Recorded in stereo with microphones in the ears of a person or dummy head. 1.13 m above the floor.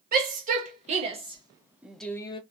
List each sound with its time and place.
0.1 s a shout: 45° right (ahead or behind), 1.4 m; by 2.4 s 25° left (ahead or behind), 0.6 m